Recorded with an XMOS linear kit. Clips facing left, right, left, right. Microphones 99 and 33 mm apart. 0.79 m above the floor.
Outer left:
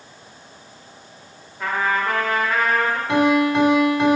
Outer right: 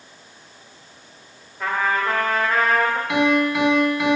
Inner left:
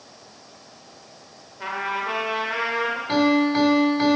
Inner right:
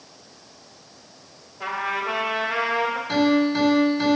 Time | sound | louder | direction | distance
1.6 | a trumpet | even, inner right 1 dB | 5° left (ahead or behind) | 1.4 m
3.1 | a piano | outer left 4 dB, inner left 1 dB | 35° left (ahead or behind) | 1.6 m